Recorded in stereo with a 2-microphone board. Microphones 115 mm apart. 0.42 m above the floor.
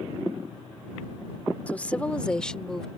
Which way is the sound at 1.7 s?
15° left (ahead or behind).